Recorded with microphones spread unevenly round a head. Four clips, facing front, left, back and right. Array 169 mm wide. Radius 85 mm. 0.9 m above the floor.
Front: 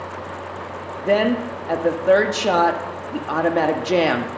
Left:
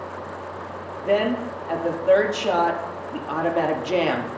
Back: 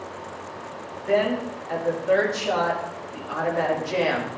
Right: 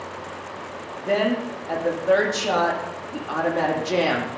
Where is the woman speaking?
5° left, 1.5 m.